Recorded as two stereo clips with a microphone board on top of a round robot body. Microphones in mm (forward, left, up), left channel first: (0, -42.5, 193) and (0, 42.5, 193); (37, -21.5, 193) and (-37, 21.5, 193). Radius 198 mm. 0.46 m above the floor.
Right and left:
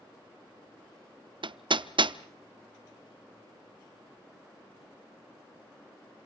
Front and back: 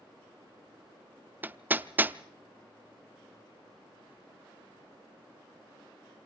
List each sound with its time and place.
1.4 s hammering: 80° left, 0.9 m